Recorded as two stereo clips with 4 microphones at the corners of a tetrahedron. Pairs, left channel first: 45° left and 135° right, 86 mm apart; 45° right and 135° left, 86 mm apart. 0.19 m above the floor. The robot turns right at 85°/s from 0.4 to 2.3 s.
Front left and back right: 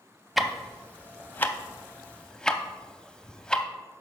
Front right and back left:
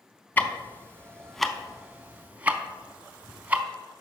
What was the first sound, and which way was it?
Ticking, 50° right.